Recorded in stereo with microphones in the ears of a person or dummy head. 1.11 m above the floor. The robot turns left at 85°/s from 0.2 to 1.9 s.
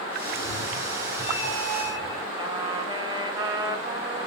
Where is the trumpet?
30° right (ahead or behind), 3.5 m.